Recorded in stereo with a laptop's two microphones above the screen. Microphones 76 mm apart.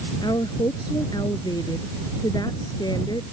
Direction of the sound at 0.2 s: 70° left (ahead or behind).